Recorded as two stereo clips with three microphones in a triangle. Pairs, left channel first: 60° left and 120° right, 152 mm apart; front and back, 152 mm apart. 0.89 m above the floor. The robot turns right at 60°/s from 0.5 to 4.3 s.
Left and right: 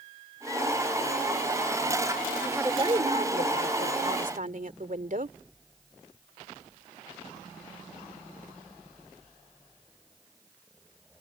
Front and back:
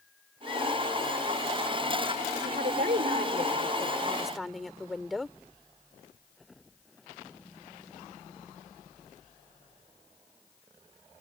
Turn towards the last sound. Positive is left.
turn(degrees=-90)